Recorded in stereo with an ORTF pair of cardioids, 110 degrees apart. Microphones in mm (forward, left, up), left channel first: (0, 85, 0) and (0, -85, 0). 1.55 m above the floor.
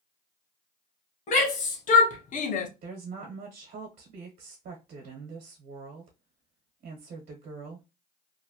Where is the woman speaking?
65° right, 1.1 m.